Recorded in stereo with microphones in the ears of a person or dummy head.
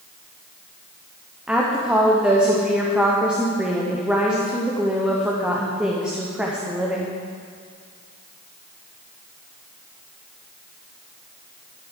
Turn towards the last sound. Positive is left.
turn(degrees=-5)  # may be behind; listen again after turning